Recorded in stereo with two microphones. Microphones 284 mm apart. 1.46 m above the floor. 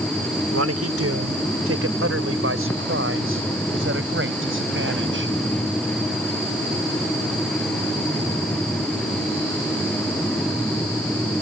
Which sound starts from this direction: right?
A man speaking, at 0.5 s.